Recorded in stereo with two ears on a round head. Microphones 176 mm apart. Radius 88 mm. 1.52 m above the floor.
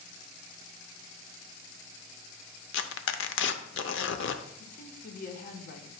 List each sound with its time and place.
2.7 s tearing paper: 65° left (ahead or behind), 0.7 m
4.6 s a woman speaking: 40° left (ahead or behind), 1.0 m